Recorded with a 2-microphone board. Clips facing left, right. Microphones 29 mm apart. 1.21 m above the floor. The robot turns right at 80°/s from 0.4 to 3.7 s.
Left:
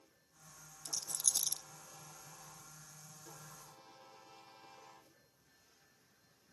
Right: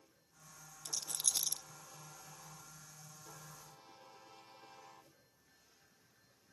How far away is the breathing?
No breathing in this recording.